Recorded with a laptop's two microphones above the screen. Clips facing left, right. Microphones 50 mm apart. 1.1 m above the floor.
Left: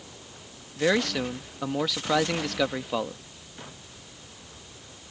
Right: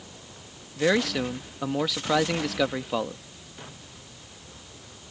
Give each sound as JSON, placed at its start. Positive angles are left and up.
{"t": 0.8, "sound": "a man speaking", "side_deg": 0}